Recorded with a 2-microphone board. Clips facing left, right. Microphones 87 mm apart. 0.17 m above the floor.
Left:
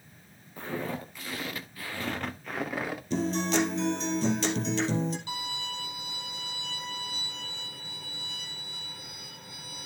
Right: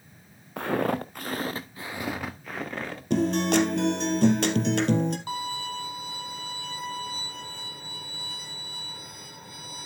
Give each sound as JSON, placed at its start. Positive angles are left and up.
{"t": 0.6, "sound": "footsteps", "side_deg": -85, "distance_m": 1.4}
{"t": 3.1, "sound": "a guitar", "side_deg": -65, "distance_m": 1.9}
{"t": 5.3, "sound": "a violin", "side_deg": -45, "distance_m": 2.5}